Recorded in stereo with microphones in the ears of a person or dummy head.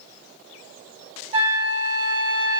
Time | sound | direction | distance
1.3 | a flute | 35° right (ahead or behind) | 0.7 m